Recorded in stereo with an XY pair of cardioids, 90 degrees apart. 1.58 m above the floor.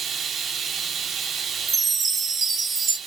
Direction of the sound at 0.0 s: 60° right.